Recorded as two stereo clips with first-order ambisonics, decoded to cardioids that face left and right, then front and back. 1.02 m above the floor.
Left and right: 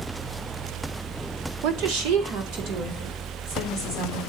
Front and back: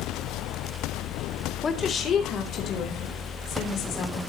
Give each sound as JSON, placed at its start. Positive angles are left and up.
{"t": 1.6, "sound": "a woman speaking", "azimuth_deg": -70, "distance_m": 2.0}